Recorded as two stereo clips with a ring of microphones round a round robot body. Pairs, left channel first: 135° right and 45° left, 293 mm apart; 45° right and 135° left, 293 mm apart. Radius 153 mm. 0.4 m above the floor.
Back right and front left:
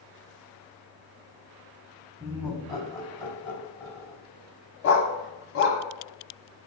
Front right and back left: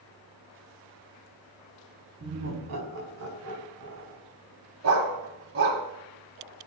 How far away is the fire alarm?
I don't hear a fire alarm.